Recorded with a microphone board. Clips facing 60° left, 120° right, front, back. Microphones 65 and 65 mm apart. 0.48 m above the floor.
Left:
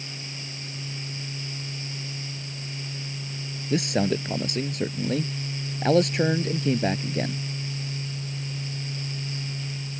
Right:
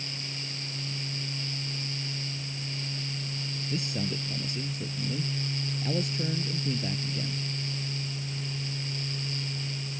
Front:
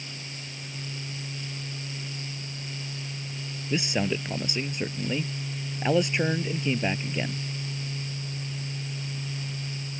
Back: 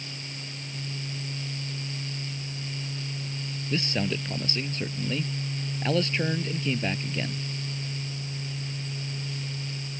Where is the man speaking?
75° left.